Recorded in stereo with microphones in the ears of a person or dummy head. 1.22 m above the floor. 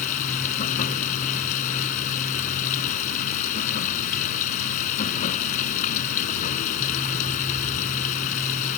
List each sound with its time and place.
0.0 s running water: 40° left (ahead or behind)